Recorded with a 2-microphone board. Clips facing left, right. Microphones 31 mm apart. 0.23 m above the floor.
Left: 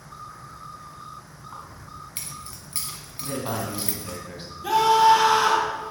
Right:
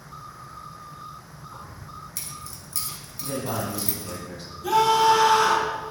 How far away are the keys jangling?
About 1.5 m.